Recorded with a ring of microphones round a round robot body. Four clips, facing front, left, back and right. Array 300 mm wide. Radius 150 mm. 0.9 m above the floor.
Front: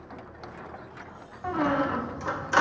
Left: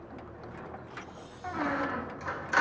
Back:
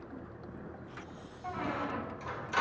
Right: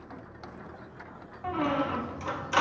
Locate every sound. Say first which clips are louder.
1.4 s a squeak: right 3 dB, front 10 dB; 20° right, 0.7 m